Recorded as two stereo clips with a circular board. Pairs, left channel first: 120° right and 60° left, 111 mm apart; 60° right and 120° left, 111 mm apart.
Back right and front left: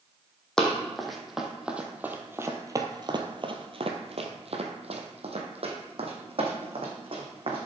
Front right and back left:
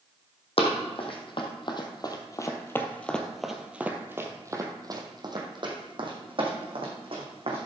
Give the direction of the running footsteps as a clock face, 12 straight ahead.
1 o'clock.